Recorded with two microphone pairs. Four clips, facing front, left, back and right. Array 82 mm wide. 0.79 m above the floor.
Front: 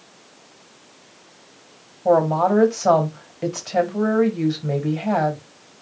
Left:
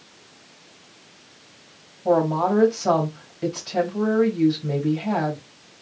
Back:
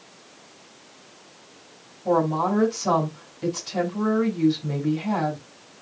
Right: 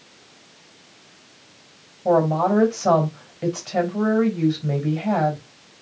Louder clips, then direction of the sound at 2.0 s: Right 1 dB, front 5 dB; 15° right.